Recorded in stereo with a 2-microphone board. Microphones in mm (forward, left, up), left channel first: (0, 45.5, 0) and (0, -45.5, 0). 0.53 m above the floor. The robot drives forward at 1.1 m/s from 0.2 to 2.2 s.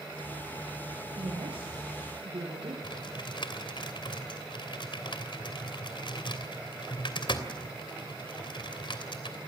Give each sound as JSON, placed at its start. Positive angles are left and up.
{"t": 1.2, "sound": "a woman speaking", "side_deg": -85, "distance_m": 9.5}
{"t": 2.8, "sound": "typing on a keyboard", "side_deg": 65, "distance_m": 3.0}